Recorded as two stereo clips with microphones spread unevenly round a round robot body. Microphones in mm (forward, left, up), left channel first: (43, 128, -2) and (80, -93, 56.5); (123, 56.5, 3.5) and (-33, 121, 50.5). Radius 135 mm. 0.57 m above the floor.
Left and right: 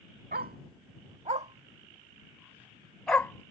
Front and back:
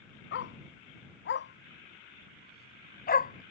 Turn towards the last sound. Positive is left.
turn(degrees=20)